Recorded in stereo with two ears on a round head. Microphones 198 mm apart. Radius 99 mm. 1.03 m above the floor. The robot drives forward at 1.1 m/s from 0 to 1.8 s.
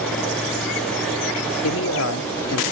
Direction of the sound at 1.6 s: 70° left (ahead or behind).